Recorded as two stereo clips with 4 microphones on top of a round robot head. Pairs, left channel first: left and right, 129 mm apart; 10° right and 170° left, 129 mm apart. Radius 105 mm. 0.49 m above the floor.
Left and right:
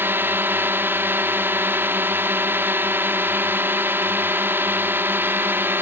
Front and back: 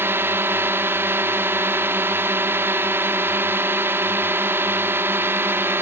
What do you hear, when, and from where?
0.0 s a drone: 140° right